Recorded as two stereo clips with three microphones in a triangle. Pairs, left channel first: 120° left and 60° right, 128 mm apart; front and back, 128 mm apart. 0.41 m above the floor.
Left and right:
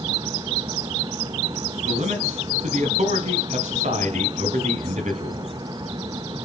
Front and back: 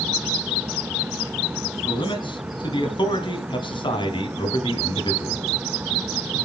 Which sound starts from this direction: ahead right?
A man speaking, at 1.8 s.